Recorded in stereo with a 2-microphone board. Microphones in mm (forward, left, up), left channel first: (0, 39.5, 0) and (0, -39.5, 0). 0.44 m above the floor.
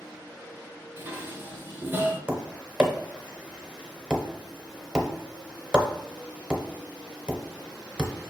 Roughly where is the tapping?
Centre.